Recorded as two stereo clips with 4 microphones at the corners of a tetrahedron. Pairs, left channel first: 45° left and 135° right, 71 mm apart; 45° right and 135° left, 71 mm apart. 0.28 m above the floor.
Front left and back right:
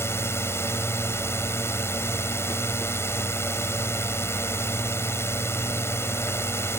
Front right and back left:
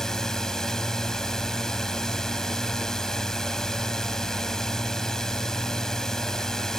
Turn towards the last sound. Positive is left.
turn(degrees=35)